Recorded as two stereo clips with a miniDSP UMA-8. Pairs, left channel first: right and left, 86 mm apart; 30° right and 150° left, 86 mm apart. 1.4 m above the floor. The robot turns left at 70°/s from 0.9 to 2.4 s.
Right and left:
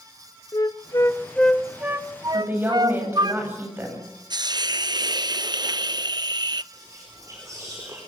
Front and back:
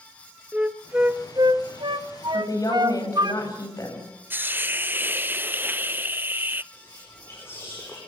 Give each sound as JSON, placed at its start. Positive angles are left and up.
{"t": 0.5, "sound": "a flute", "azimuth_deg": -135, "distance_m": 1.1}
{"t": 2.3, "sound": "a woman speaking", "azimuth_deg": 25, "distance_m": 8.5}
{"t": 4.3, "sound": "a hiss", "azimuth_deg": 90, "distance_m": 0.6}
{"t": 6.7, "sound": "whispering", "azimuth_deg": 35, "distance_m": 4.5}